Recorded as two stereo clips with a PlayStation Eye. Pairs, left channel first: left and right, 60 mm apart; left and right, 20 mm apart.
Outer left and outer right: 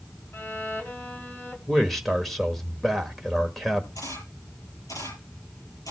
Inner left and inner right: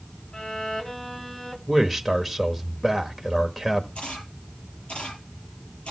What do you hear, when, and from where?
0.3 s a violin: 35° left (ahead or behind), 2 m
1.7 s a man speaking: centre (ahead or behind), 1.3 m
4.0 s a camera shutter: 70° left (ahead or behind), 6.5 m